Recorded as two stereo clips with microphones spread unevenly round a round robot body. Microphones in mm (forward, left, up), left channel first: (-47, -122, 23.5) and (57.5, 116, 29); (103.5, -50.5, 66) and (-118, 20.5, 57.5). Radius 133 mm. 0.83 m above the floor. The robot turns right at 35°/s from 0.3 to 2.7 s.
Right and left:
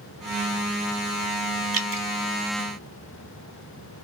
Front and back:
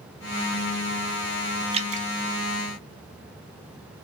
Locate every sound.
1.7 s dripping: 100° left, 0.7 m; by 2.1 s 110° left, 0.7 m